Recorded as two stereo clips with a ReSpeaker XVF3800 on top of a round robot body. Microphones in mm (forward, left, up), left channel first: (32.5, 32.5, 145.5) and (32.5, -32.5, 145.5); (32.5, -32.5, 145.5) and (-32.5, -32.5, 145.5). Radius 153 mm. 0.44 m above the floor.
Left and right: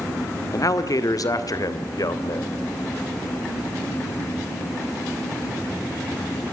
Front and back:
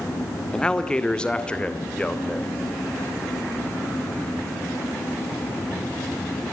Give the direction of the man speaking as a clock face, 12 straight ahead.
10 o'clock.